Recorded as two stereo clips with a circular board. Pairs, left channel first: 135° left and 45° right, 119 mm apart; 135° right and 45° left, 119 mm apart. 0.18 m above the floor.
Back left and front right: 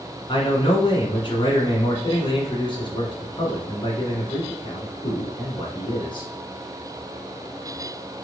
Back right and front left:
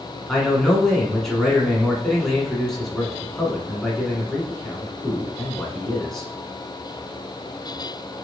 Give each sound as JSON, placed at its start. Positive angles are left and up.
{"t": 0.3, "sound": "a man speaking", "azimuth_deg": 140, "distance_m": 1.7}